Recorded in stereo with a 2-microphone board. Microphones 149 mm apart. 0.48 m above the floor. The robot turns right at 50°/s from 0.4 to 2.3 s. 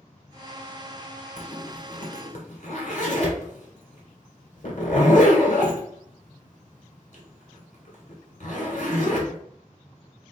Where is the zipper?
40° left (ahead or behind), 1.4 m; by 9.4 s 55° left (ahead or behind), 1.4 m.